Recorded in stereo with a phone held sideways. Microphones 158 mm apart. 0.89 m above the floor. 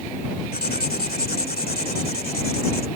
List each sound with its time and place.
0.5 s writing: 80° left